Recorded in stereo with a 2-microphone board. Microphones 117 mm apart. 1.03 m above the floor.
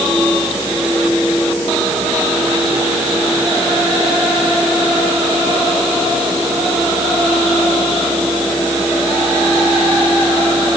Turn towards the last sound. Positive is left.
No sound to turn to.